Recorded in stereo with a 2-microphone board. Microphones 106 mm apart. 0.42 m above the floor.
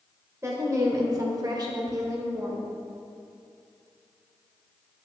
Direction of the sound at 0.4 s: 25° right (ahead or behind).